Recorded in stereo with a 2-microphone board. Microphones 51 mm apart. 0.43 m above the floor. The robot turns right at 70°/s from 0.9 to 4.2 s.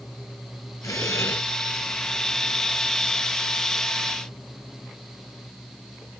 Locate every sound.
0.8 s breathing: 105° left; by 1.4 s 140° left